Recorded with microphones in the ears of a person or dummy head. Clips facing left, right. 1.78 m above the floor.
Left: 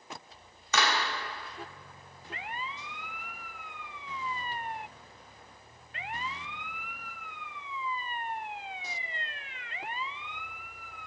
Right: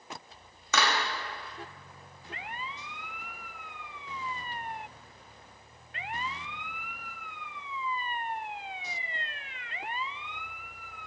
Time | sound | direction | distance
0.7 | a clap | 65° right (ahead or behind) | 1.1 m